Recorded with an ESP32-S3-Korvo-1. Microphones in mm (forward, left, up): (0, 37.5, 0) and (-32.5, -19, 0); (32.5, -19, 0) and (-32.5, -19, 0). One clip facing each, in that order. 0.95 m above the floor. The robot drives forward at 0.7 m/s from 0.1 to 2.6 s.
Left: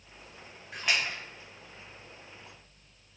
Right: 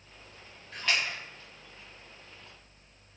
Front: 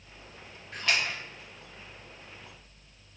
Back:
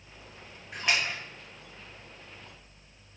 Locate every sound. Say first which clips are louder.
0.7 s a splash: even, even; 110° left, 0.9 m; by 1.2 s 140° left, 1.1 m